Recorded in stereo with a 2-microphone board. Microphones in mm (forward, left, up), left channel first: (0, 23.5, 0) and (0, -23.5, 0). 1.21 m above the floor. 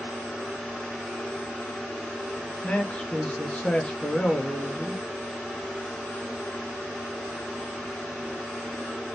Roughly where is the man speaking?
Left.